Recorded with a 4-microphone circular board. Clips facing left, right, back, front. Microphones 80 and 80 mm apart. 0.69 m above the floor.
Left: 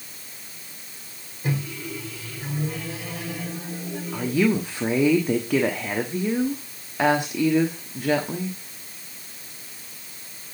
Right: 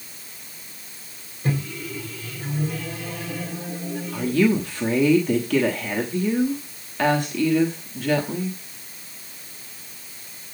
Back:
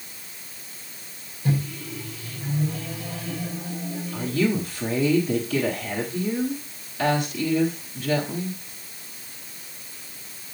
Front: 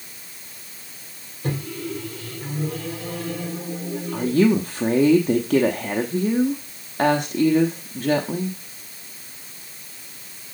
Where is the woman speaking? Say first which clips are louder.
Right 2 dB, front 6 dB; 20° left, 1.1 m.